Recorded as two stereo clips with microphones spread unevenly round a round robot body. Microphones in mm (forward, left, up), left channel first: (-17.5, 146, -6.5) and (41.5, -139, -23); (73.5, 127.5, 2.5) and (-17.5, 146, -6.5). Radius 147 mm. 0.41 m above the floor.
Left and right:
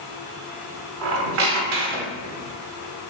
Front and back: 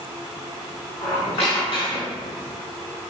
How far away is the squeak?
About 0.7 m.